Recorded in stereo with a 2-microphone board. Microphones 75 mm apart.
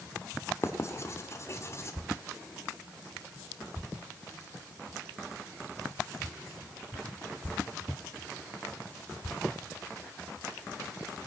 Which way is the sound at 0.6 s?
40° left (ahead or behind).